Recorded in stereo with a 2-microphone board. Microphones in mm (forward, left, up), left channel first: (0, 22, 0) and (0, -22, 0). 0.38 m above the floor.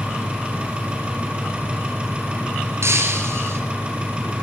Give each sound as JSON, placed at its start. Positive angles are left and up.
{"t": 0.0, "sound": "an engine running", "side_deg": -25, "distance_m": 3.5}
{"t": 2.8, "sound": "breaking glass", "side_deg": -75, "distance_m": 2.0}